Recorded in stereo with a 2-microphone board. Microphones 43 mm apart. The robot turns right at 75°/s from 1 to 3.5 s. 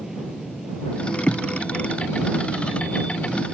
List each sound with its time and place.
0.0 s an aircraft: 170° right; by 3.5 s 15° left